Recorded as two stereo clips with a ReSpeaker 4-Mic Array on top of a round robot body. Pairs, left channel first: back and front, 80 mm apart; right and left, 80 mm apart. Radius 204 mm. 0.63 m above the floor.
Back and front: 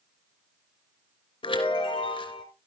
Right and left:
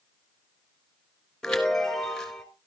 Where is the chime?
175° right, 2.5 m.